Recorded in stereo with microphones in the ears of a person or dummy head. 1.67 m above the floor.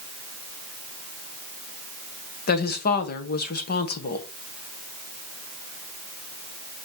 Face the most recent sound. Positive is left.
turn(degrees=50)  # may be behind; listen again after turning